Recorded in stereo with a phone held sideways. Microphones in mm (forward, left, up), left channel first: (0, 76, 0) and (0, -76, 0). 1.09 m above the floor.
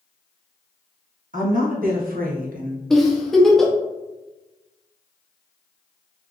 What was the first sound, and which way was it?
A woman speaking, 65° right (ahead or behind).